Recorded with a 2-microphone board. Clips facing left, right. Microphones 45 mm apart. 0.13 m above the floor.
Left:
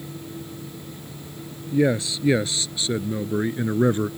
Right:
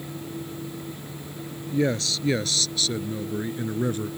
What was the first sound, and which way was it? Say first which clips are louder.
A man speaking: left 4 dB; 15° left (ahead or behind).